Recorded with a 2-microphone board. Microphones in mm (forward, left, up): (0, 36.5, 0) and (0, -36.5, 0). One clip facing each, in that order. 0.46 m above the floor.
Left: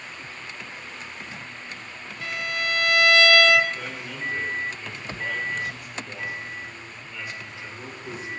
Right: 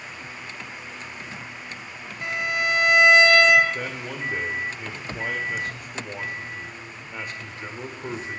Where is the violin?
20° right (ahead or behind), 0.5 m.